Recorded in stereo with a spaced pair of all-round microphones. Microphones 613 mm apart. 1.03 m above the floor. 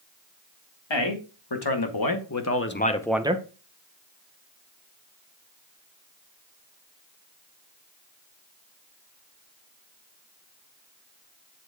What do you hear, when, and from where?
0.9 s a man speaking: 45° left (ahead or behind), 1.7 m; by 3.4 s 15° right (ahead or behind), 0.6 m